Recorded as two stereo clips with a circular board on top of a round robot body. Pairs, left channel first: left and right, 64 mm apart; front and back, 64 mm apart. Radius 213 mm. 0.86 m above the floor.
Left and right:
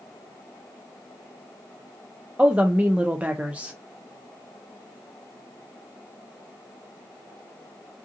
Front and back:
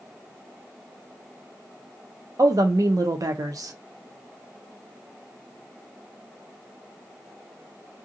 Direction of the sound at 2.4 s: 155° right.